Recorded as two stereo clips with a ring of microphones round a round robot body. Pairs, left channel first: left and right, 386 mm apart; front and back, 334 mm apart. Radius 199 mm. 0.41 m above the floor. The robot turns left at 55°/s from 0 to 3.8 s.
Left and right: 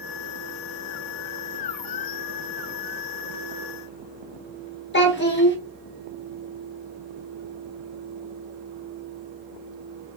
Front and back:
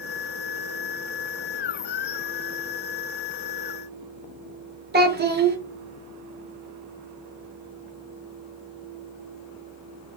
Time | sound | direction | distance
4.9 | a child speaking | 135° left | 0.8 m